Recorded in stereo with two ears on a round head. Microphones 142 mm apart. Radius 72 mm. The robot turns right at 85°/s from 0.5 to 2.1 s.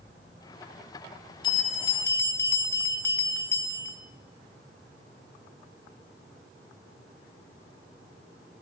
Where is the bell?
95° left, 1.4 m; by 4.0 s 150° left, 1.4 m.